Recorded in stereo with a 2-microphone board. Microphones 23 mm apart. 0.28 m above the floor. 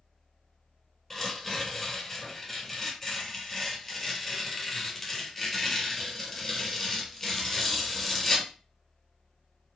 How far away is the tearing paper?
About 1.4 m.